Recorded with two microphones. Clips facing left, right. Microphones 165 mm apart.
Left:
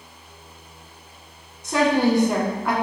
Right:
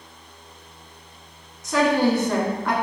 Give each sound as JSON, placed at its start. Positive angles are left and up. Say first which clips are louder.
{"t": 1.6, "sound": "a woman speaking", "louder": "even", "side_deg": 30, "distance_m": 1.4}